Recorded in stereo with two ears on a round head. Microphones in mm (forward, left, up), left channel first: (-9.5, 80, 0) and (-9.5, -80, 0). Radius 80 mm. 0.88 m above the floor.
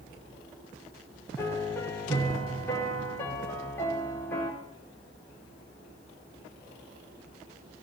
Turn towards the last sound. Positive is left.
turn(degrees=10)  # may be behind; listen again after turning